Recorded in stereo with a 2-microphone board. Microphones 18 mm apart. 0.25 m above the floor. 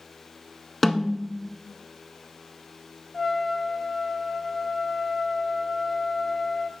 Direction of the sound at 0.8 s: Centre (ahead or behind).